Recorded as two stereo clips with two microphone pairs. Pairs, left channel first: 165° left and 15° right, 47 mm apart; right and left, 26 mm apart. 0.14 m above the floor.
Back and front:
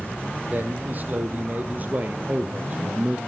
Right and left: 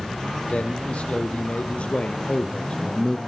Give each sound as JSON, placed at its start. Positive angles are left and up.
{"t": 0.5, "sound": "a man speaking", "azimuth_deg": -65, "distance_m": 5.0}